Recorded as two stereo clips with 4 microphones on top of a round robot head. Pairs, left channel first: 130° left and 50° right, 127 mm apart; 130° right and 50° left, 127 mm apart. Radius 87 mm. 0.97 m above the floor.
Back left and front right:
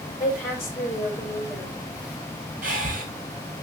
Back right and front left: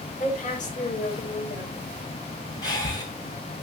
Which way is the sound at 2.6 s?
65° right.